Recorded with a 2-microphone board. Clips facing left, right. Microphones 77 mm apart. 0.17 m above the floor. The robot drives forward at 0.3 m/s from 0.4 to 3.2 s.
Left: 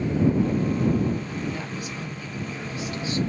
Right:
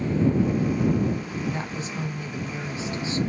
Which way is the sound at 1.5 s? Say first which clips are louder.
Right 1 dB; 30° right (ahead or behind).